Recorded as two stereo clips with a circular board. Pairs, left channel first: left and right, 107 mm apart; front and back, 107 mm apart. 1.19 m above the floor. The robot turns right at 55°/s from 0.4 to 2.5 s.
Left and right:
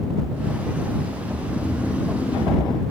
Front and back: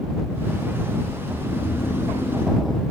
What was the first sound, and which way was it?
Snoring, 25° right.